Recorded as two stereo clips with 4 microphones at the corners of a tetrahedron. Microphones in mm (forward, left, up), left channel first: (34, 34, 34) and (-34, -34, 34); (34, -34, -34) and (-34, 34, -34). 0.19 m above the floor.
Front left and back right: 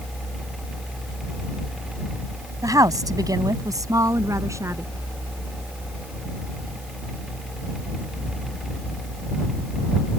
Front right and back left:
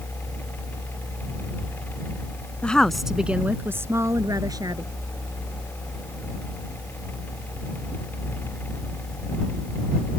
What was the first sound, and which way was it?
A woman speaking, 115° right.